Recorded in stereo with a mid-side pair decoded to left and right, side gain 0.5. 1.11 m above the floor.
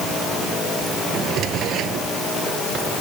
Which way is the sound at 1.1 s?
70° right.